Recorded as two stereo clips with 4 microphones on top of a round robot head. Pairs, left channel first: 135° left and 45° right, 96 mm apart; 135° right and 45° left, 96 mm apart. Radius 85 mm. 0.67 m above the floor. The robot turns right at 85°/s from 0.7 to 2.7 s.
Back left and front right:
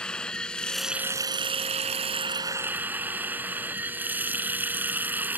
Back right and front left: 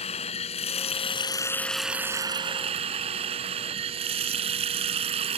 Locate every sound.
0.0 s running water: 140° right; by 5.4 s 30° left